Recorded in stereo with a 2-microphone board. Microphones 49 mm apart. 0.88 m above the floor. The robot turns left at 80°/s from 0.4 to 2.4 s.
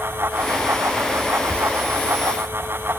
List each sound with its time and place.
1.5 s whispering: 25° left (ahead or behind), 3.5 m; by 1.6 s 35° left (ahead or behind), 3.5 m